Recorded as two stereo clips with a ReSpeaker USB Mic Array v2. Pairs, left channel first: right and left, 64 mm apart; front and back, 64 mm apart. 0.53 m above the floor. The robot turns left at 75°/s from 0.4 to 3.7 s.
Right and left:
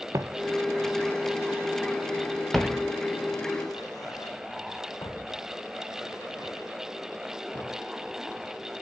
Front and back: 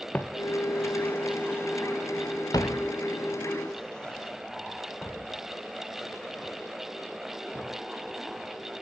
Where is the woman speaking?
I don't hear a woman speaking.